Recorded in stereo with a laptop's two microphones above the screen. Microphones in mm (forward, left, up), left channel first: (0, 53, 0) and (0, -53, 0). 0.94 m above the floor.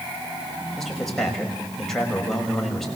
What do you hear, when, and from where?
0.8 s a man speaking: 5° left (ahead or behind), 5.5 m